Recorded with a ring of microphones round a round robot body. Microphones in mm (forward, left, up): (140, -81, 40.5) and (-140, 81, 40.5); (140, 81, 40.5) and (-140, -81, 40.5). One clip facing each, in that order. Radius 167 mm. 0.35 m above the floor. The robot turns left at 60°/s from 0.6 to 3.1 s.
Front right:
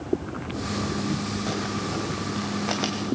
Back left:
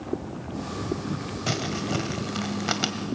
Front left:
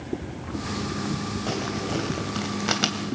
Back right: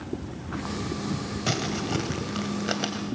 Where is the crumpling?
175° left, 2.5 m; by 3.2 s 75° left, 2.5 m.